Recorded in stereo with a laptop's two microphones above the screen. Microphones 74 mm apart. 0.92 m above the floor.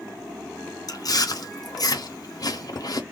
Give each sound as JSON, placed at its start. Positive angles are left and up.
{"t": 0.9, "sound": "chewing", "side_deg": 55, "distance_m": 0.7}